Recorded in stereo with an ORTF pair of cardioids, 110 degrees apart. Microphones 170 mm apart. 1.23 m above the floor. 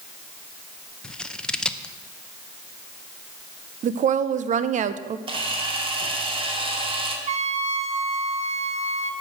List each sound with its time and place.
1.0 s scissors: 5° left, 0.8 m
3.8 s a woman speaking: 50° right, 0.8 m
5.3 s a camera shutter: 35° right, 2.5 m
7.3 s a trumpet: 45° right, 1.3 m